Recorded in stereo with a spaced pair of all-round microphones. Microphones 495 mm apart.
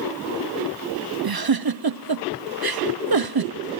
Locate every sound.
1.2 s a giggle: 50° right (ahead or behind), 0.7 m